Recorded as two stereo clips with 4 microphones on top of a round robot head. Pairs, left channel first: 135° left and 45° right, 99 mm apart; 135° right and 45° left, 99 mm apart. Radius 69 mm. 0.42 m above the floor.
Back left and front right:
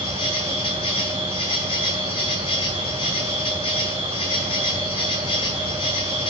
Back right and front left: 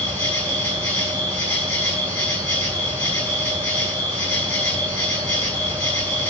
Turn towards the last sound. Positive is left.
turn(degrees=150)